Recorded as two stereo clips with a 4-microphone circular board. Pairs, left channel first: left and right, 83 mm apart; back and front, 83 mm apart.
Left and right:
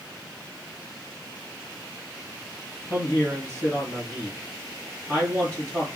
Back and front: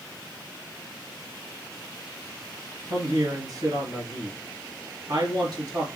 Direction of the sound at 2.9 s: 15° left.